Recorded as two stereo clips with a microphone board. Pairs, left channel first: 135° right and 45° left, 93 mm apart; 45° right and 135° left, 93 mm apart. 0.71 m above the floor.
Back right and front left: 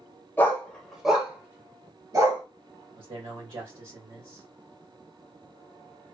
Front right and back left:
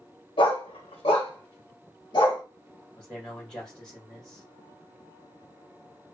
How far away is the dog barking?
About 1.0 m.